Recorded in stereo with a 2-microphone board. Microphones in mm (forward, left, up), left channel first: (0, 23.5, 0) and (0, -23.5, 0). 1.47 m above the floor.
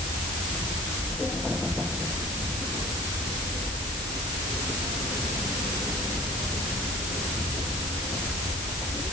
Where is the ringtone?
No ringtone in this recording.